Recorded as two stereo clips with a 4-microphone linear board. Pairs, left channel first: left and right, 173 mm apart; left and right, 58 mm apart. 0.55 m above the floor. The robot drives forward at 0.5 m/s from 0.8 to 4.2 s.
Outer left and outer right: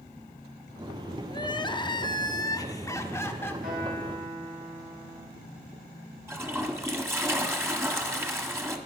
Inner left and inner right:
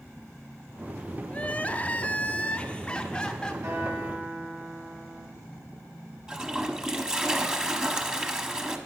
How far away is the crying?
About 0.6 m.